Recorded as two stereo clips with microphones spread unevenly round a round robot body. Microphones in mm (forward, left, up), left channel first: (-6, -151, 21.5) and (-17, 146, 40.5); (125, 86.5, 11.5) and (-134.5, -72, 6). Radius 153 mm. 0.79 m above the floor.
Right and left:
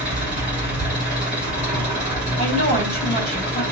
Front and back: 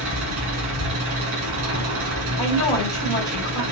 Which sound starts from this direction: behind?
An engine running, at 0.0 s.